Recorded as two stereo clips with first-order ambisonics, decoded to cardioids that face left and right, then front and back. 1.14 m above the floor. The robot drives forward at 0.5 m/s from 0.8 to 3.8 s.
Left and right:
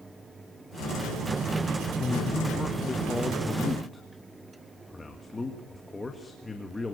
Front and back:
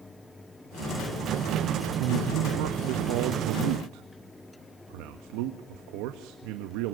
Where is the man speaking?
160° left, 0.9 m; by 7.0 s 170° left, 1.8 m.